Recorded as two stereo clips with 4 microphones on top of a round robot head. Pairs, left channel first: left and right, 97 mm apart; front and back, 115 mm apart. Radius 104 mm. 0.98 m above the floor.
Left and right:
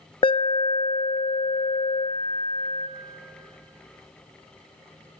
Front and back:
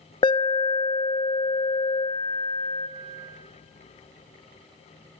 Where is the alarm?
50° left, 0.9 m.